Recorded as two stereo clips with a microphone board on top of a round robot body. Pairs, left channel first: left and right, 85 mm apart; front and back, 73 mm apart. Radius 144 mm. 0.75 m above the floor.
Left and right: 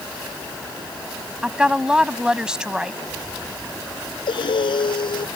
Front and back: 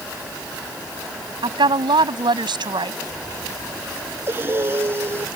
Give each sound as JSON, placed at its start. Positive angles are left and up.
{"t": 1.4, "sound": "a woman speaking", "azimuth_deg": -170}
{"t": 4.3, "sound": "breathing", "azimuth_deg": 120}